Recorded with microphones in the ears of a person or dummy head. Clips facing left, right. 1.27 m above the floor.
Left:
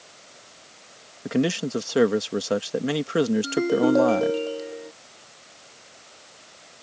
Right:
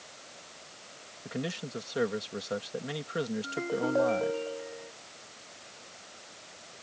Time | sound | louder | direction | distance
1.2 | a man speaking | left 13 dB | 70° left (ahead or behind) | ?
3.4 | a ringtone | left 11 dB | 50° left (ahead or behind) | ?